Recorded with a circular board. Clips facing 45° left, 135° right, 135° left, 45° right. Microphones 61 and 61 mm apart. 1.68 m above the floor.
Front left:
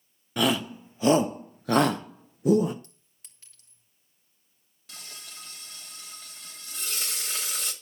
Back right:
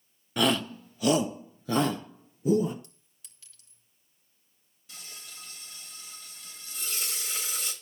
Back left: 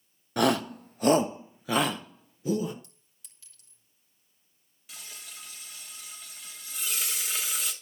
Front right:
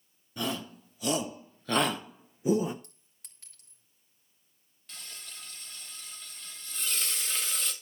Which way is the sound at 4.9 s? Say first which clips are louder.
Front left 2 dB, back left 1 dB; 55° left.